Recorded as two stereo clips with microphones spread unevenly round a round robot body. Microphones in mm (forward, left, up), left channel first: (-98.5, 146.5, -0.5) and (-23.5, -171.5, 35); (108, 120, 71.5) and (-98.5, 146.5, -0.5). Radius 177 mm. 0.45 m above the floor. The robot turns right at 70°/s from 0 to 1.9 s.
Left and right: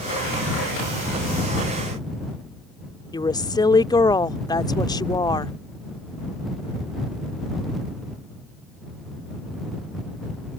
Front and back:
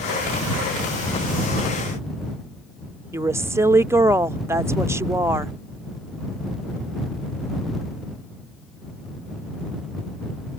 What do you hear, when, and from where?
3.1 s a woman speaking: 160° left